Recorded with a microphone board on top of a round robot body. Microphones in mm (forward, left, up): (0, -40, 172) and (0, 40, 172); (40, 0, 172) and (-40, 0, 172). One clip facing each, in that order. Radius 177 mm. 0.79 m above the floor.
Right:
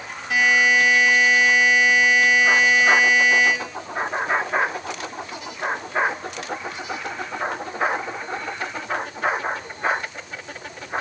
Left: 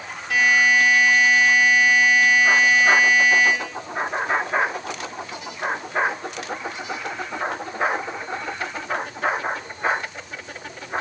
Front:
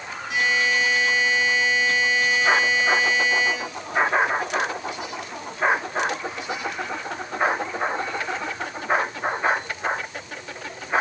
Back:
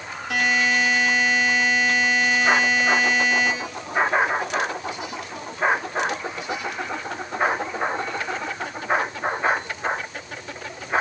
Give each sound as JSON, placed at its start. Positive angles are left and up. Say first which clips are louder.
{"t": 0.3, "sound": "a buzzer", "louder": "even, back 1 dB", "azimuth_deg": -160, "distance_m": 7.0}